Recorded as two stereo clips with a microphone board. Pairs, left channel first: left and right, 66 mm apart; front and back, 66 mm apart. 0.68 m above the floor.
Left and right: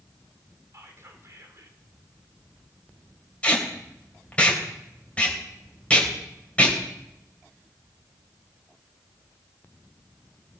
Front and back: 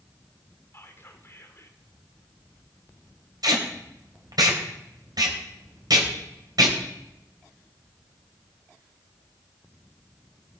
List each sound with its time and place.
0.7 s whispering: 50° right, 2 m
3.4 s tape being pulled: 160° left, 3 m